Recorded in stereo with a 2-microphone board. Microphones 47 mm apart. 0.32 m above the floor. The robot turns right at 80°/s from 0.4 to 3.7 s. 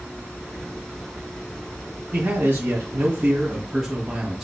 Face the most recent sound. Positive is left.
turn(degrees=-10)